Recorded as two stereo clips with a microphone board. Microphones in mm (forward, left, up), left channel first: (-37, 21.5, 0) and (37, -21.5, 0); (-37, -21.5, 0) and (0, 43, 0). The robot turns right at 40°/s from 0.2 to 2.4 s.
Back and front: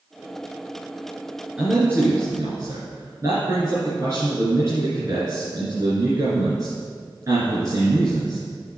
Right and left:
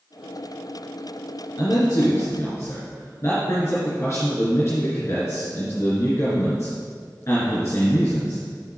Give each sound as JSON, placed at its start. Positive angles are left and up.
{"t": 1.6, "sound": "a man speaking", "azimuth_deg": -105, "distance_m": 3.0}